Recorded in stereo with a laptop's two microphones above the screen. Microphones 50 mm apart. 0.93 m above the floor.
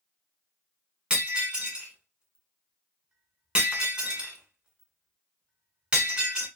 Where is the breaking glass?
20° right (ahead or behind), 1.5 m.